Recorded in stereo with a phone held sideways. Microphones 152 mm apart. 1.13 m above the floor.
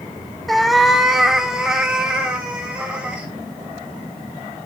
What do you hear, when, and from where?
0.5 s a cat meowing: centre (ahead or behind), 0.8 m; by 3.3 s 5° right (ahead or behind), 3 m